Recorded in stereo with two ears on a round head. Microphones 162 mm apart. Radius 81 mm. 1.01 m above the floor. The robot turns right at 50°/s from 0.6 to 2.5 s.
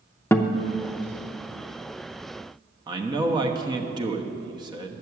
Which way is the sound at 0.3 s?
15° left (ahead or behind).